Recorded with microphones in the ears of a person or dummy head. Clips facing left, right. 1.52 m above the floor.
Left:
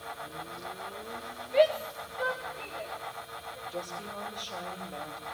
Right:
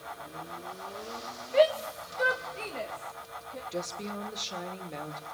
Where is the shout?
Centre (ahead or behind), 2.5 m; by 3.6 s 65° right (ahead or behind), 3.5 m.